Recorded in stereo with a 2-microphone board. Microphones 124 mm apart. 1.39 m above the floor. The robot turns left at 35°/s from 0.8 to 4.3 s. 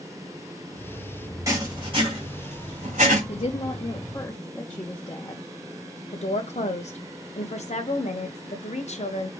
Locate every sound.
1.5 s writing: 25° right (ahead or behind), 2.5 m; by 3.2 s 80° right, 2.5 m
3.3 s a woman speaking: 60° left, 0.9 m; by 5.4 s 25° left, 0.9 m
6.1 s a woman speaking: 60° left (ahead or behind), 0.9 m